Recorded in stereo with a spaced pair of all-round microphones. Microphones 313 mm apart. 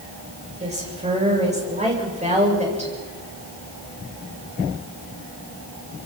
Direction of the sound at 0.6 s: 20° right (ahead or behind).